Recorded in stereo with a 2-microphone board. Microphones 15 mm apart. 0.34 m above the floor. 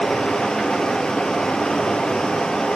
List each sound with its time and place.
0.0 s running water: 65° left (ahead or behind), 2.5 m